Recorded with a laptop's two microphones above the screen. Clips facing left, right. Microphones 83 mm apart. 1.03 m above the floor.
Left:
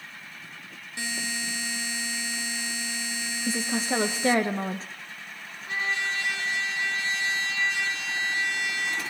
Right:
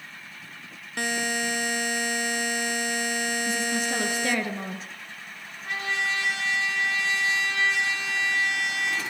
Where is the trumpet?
70° right (ahead or behind), 6 m.